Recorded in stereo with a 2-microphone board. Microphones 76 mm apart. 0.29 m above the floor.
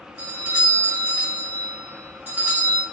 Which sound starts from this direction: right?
A doorbell, at 0.2 s.